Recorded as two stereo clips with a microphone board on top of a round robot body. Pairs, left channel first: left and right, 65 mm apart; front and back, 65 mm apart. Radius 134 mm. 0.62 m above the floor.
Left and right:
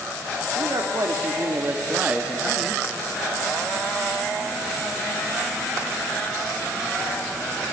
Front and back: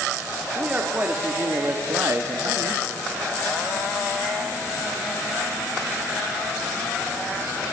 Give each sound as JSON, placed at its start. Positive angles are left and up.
{"t": 0.6, "sound": "a man speaking", "azimuth_deg": -110, "distance_m": 2.5}